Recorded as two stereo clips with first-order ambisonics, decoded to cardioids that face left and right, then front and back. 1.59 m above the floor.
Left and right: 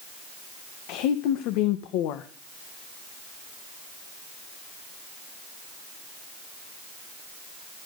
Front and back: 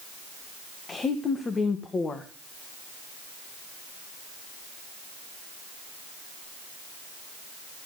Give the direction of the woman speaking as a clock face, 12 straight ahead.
10 o'clock.